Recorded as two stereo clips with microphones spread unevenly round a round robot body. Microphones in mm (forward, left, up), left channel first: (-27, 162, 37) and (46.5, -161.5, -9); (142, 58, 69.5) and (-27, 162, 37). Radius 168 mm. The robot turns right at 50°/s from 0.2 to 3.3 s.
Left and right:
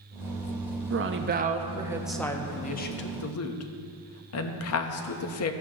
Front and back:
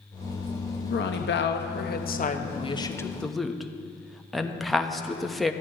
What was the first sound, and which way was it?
A woman speaking, 55° right.